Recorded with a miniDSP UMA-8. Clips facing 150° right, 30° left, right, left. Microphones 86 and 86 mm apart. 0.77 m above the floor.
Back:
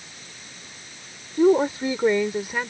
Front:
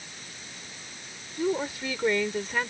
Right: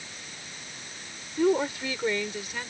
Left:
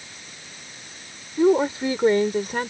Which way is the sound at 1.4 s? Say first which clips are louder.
Back 11 dB, left 6 dB; 165° left.